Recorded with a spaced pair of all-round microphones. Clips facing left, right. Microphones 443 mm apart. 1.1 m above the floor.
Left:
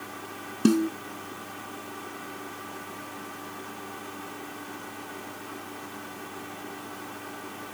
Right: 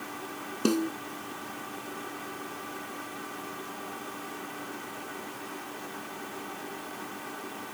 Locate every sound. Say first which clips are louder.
0.7 s a snare drum: left 5 dB; 35° left (ahead or behind)